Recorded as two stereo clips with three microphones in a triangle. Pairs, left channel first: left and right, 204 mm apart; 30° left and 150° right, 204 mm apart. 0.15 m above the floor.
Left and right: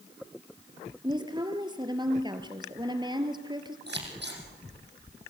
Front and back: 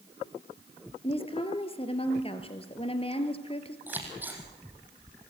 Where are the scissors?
70° right, 5 m.